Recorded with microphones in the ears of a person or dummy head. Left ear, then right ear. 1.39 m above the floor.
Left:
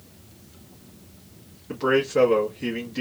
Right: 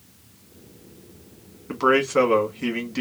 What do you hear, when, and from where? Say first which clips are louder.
1.7 s a man speaking: right 3 dB; 40° right (ahead or behind), 1.6 m